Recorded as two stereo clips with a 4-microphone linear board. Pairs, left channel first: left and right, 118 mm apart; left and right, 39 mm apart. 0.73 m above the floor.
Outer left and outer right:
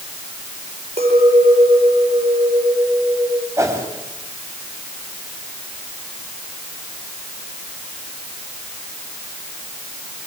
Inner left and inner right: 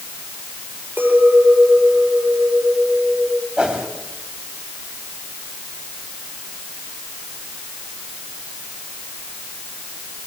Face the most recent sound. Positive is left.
turn(degrees=-25)  # may be behind; listen again after turning